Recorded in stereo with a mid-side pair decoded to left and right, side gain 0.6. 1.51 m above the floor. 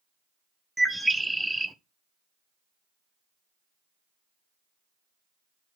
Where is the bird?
10° right, 0.6 m.